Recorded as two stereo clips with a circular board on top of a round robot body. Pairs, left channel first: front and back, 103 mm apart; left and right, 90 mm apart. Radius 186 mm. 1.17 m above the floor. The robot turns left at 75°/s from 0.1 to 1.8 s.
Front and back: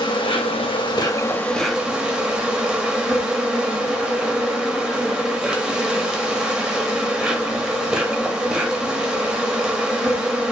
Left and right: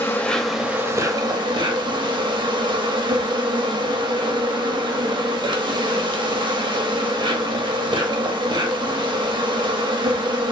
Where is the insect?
30° left, 0.9 m; by 10.5 s 100° right, 0.9 m.